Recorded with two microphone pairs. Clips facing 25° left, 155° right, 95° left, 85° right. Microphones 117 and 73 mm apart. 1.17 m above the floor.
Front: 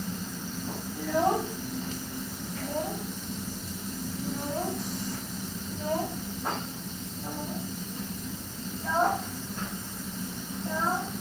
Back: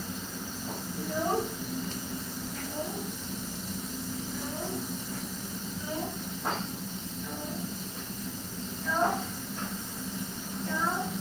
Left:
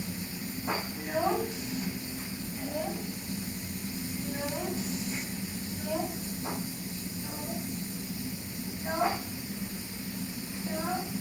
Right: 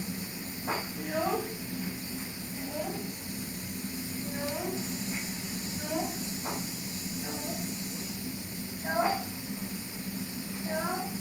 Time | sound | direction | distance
0.9 | a child speaking | 15° left | 5 m